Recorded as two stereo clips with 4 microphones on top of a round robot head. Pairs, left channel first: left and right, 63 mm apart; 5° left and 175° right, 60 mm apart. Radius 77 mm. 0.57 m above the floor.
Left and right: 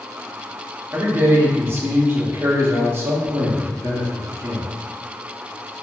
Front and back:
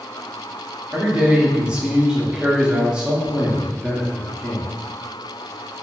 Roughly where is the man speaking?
Right.